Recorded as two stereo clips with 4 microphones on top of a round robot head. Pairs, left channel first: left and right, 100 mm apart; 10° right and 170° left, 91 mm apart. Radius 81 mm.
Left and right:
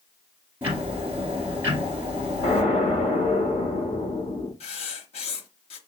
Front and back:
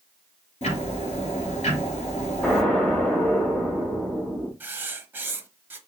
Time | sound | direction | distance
0.6 | ticking | 15° right | 2 m
2.4 | an explosion | 70° left | 1.8 m
4.6 | writing | 105° left | 0.9 m